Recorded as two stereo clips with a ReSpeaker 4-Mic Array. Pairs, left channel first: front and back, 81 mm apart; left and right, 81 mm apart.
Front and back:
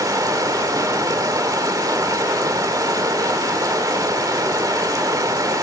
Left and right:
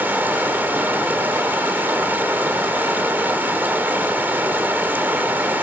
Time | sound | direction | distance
0.0 | running water | 150° right | 1.9 m